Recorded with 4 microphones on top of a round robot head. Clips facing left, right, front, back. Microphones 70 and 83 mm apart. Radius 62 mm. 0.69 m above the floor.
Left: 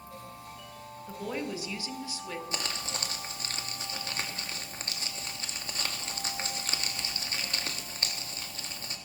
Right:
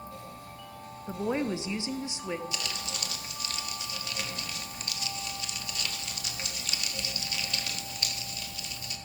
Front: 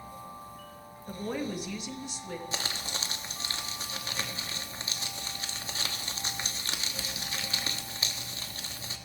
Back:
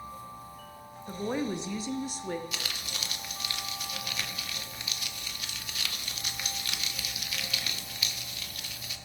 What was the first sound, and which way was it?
A woman speaking, 100° right.